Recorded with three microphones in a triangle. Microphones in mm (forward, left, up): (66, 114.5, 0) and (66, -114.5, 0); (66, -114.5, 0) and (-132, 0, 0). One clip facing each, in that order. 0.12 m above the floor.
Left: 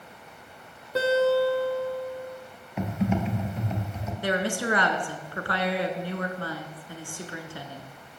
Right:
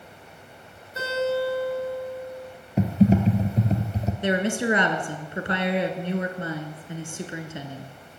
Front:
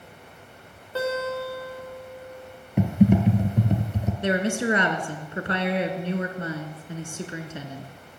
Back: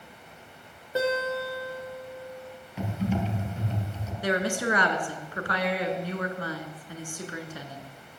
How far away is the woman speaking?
About 1.1 m.